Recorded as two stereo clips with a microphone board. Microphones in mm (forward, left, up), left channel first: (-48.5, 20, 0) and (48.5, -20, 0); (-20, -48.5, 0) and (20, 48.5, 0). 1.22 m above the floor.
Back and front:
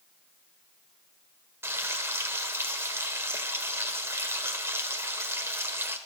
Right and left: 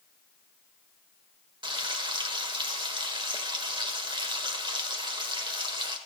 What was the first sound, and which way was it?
Frying, 40° left.